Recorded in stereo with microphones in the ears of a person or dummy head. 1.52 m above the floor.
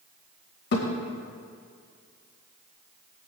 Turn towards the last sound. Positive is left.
turn(degrees=45)  # may be behind; listen again after turning